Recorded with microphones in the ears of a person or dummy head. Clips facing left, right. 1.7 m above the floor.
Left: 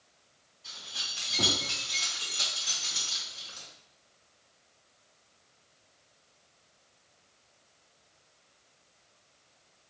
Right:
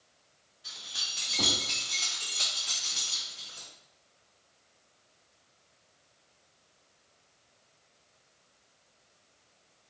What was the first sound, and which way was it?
Keys jangling, 10° right (ahead or behind).